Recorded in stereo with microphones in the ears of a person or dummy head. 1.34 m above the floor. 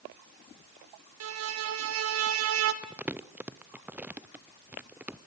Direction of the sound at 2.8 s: 5° right (ahead or behind).